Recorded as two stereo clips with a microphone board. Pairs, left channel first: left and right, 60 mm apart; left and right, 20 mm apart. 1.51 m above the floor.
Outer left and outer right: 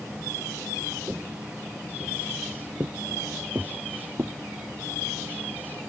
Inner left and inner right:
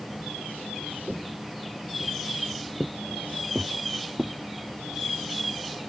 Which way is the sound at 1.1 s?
25° right (ahead or behind).